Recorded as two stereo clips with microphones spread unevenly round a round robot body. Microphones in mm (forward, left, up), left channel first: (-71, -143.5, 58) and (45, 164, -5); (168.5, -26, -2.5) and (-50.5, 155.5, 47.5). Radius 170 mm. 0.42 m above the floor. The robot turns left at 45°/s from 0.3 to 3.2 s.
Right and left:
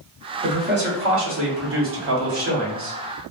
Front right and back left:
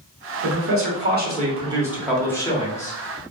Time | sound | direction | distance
0.4 | a man speaking | 115° left | 1.2 m